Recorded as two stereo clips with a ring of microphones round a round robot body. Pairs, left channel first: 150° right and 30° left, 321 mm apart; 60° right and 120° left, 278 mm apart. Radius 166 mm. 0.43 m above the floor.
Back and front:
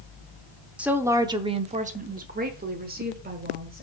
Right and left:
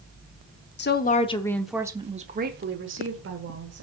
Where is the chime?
I don't hear a chime.